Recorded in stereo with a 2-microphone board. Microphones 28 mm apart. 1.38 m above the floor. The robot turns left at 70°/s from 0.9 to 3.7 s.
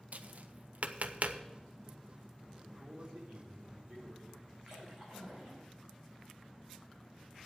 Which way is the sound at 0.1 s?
65° right (ahead or behind).